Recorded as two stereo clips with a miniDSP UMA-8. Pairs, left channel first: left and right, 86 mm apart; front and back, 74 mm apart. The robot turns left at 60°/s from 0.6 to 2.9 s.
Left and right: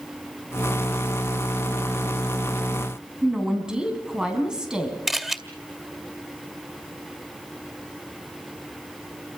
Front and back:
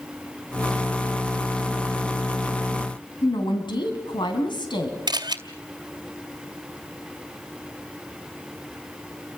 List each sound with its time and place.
3.2 s a woman speaking: 10° right, 3.5 m
5.1 s a camera shutter: 175° right, 2 m